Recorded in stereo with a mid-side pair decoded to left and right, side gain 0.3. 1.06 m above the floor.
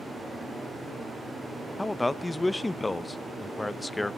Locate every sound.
1.8 s a man speaking: 35° left, 0.6 m